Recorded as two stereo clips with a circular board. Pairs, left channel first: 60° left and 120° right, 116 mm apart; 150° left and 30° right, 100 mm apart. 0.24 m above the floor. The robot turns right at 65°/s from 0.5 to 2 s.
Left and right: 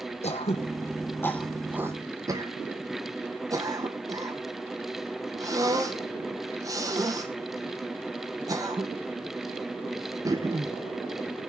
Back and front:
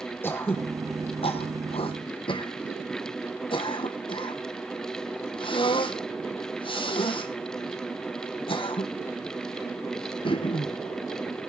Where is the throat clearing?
85° left, 2.0 m; by 10.8 s straight behind, 2.0 m.